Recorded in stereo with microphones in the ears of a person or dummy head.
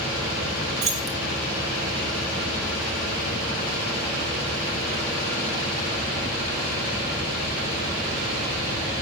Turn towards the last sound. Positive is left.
turn(degrees=-25)  # may be behind; listen again after turning